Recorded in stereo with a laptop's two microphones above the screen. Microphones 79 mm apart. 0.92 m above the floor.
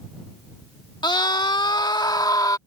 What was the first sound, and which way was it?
A scream, 70° left (ahead or behind).